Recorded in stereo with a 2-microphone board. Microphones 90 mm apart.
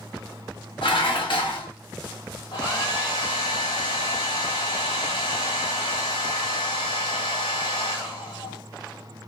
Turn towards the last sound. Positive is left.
turn(degrees=60)  # may be behind; listen again after turning